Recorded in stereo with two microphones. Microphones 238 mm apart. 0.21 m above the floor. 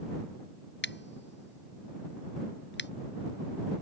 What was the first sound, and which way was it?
Scissors, 50° left (ahead or behind).